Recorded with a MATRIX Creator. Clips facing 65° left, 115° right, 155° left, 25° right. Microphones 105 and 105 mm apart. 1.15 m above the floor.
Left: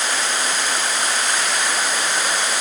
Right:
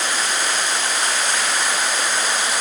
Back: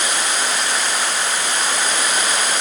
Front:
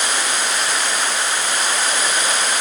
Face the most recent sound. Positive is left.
No sound to turn to.